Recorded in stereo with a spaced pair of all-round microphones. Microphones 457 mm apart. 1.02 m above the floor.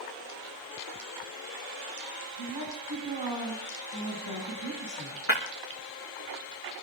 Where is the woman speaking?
70° left (ahead or behind), 9 m.